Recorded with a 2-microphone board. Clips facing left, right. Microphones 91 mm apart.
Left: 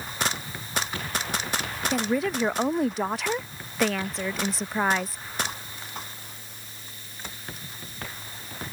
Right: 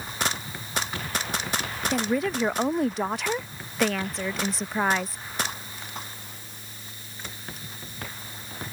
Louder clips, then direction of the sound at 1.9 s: Even; centre (ahead or behind).